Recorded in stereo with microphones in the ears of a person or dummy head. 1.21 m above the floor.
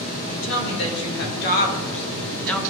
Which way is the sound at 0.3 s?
70° left (ahead or behind).